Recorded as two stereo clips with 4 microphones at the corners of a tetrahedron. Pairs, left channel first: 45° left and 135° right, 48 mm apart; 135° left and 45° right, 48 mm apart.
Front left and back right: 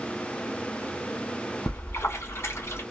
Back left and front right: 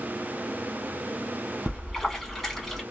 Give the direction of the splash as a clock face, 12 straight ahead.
10 o'clock.